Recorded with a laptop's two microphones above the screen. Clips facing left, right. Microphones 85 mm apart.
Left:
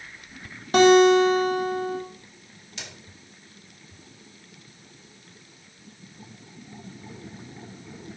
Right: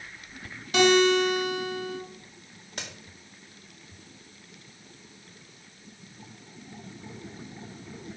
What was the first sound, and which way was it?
A guitar, 40° left (ahead or behind).